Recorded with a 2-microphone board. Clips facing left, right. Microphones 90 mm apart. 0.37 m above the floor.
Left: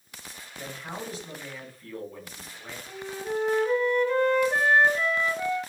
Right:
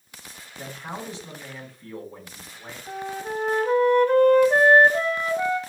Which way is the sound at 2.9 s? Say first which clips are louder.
Right 2 dB; 50° right (ahead or behind).